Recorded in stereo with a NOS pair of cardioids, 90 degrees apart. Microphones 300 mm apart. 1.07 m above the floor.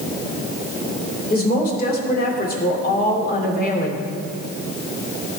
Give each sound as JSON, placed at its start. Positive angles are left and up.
{"t": 1.3, "sound": "a woman speaking", "azimuth_deg": 30, "distance_m": 2.5}